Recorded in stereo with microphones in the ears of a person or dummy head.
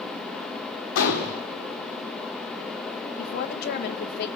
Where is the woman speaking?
60° left (ahead or behind), 1.6 m.